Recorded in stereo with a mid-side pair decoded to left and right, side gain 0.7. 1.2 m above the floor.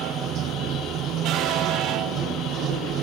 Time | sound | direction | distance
0.0 | running water | 45° right | ?